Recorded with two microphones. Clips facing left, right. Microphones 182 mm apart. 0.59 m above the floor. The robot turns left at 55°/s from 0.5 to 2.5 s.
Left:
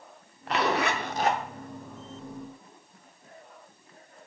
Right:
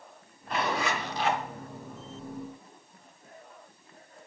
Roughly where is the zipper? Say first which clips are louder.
Left 4 dB; left.